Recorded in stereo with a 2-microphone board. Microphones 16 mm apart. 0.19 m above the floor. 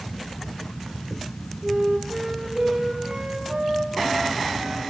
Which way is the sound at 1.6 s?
70° right (ahead or behind).